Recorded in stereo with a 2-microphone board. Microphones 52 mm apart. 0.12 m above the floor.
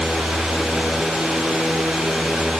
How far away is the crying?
No crying in this recording.